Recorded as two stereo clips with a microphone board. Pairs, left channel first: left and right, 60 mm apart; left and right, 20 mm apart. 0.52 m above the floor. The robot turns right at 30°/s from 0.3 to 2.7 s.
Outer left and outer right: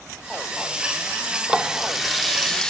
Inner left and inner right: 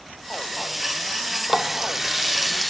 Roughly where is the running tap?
Ahead.